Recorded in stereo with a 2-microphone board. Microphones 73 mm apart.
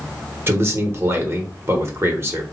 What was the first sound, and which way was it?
A man speaking, 35° right (ahead or behind).